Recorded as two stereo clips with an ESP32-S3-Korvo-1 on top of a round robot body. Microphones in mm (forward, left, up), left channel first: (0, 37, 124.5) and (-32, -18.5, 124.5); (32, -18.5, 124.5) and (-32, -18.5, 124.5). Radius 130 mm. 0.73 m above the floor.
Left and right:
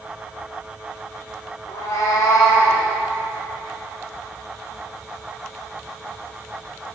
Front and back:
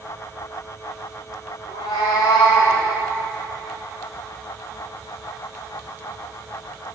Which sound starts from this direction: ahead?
A cat meowing, at 1.7 s.